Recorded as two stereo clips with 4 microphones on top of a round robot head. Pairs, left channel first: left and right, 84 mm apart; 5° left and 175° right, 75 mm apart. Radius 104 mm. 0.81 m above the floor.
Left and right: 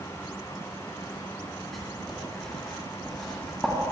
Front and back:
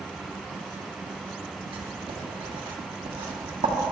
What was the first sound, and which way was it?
Writing, 175° left.